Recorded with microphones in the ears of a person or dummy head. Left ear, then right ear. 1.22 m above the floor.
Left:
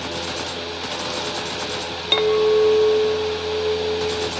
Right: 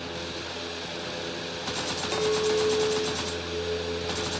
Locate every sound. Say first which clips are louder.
2.1 s a clink: left 9 dB; 50° left (ahead or behind), 1.0 m